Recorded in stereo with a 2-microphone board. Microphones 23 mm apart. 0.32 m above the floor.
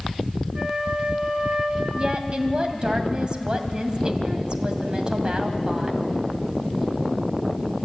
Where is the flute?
50° right (ahead or behind), 2 m.